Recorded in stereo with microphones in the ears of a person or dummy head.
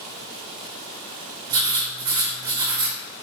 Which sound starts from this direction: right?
Writing, at 1.5 s.